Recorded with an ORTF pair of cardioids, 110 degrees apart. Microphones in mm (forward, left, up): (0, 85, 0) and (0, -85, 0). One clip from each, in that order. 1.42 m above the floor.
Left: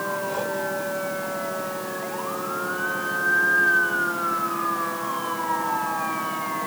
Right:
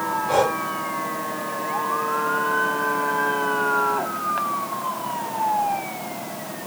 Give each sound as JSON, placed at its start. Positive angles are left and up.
{"t": 0.3, "sound": "breathing", "azimuth_deg": -65}